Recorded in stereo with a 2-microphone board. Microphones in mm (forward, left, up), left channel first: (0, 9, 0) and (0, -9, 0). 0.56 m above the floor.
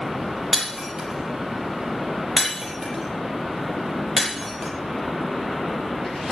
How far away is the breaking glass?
About 6 m.